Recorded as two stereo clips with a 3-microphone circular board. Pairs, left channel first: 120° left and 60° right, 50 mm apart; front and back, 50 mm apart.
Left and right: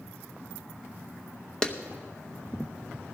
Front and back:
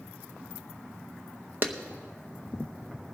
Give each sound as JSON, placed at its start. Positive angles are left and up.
{"t": 1.6, "sound": "a clap", "azimuth_deg": -175, "distance_m": 0.7}